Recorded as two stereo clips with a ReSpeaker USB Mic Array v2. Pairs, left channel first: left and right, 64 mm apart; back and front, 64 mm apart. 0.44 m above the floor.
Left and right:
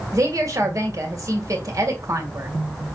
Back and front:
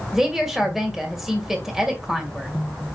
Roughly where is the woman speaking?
Right.